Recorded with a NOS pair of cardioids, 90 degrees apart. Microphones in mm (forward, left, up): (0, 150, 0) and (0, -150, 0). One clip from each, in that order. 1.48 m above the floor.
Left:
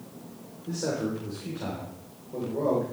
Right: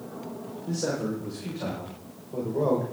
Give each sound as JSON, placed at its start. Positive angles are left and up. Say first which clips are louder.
{"t": 0.7, "sound": "a man speaking", "louder": "even", "azimuth_deg": -10, "distance_m": 5.5}